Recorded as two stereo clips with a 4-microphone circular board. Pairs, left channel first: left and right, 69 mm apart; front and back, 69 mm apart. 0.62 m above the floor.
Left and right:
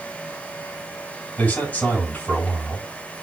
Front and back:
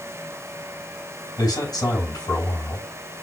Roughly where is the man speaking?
Ahead.